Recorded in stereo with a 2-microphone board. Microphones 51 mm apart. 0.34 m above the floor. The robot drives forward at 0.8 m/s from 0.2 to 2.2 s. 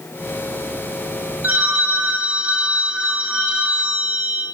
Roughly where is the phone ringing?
Right.